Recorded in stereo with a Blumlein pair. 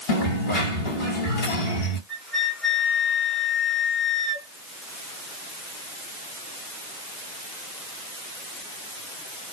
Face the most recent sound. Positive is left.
turn(degrees=5)